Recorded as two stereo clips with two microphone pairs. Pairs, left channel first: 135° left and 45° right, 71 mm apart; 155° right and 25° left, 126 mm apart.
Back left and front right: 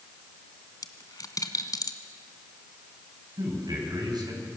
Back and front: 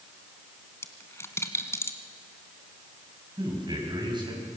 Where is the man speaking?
30° right, 7 m.